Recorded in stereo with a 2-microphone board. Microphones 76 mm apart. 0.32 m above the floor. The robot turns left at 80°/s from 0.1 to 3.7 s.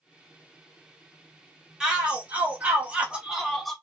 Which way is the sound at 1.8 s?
10° right (ahead or behind).